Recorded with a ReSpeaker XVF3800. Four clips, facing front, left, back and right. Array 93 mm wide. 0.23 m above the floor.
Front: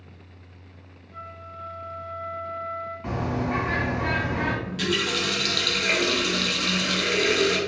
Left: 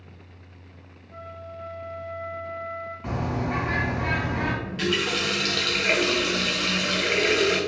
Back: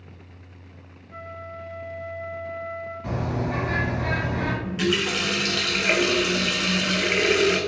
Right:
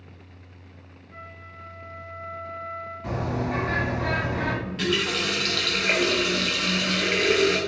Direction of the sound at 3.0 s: 55° left.